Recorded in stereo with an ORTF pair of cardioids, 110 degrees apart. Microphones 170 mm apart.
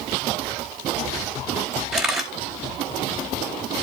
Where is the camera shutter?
5° right, 4.5 m.